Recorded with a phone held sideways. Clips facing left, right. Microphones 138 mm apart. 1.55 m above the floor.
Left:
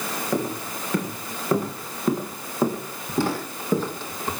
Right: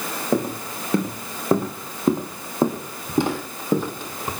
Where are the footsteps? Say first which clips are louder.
Right 4 dB; 30° right (ahead or behind), 4.5 m; by 4.3 s 10° right (ahead or behind), 3 m.